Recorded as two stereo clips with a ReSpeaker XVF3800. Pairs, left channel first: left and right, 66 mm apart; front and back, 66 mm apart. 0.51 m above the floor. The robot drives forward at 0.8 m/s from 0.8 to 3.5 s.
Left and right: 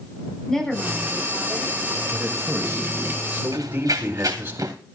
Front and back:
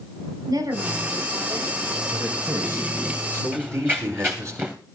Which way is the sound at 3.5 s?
115° right.